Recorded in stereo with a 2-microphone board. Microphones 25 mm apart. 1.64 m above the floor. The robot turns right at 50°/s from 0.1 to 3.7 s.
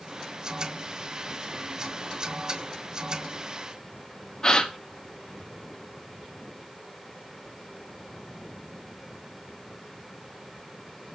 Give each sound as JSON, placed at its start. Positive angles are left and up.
{"t": 4.4, "sound": "a gasp", "side_deg": 25, "distance_m": 1.0}